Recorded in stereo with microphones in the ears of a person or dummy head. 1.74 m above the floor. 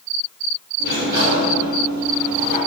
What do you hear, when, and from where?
0.8 s a sliding door: 50° right (ahead or behind), 0.6 m